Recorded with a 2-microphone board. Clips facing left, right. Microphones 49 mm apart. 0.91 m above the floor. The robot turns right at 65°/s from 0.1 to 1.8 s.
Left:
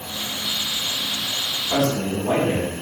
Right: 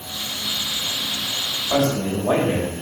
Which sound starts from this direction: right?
A man speaking, at 1.7 s.